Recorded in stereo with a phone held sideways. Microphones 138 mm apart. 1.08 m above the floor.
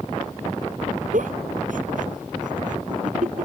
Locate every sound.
1.1 s a giggle: 75° right (ahead or behind)